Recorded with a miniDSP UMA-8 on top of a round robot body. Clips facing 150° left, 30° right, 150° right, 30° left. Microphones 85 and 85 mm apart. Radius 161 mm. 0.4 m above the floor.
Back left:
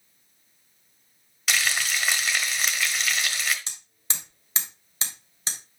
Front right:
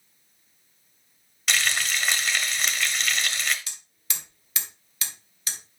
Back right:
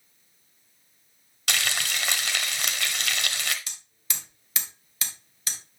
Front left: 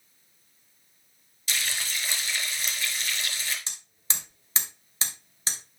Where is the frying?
120° right, 1.2 m.